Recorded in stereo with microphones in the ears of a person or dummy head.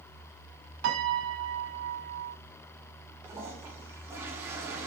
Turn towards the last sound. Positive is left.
turn(degrees=-10)  # may be behind; listen again after turning